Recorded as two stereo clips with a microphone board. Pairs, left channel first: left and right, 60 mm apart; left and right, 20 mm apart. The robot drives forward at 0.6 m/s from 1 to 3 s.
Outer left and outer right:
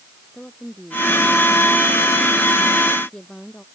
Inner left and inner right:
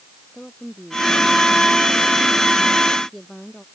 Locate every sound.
0.3 s a woman speaking: 15° left (ahead or behind)